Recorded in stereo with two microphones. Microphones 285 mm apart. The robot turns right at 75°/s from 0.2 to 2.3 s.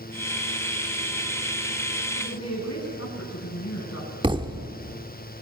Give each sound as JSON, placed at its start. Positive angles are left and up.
{"t": 2.1, "sound": "a woman speaking", "side_deg": 45, "distance_m": 9.5}
{"t": 4.2, "sound": "a thud", "side_deg": -15, "distance_m": 1.4}